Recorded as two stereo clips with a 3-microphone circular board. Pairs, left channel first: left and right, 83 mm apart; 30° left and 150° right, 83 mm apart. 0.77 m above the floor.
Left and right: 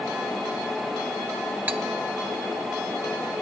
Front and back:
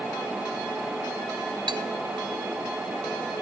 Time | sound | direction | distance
1.7 | cutlery clinking | 155° right | 1.0 m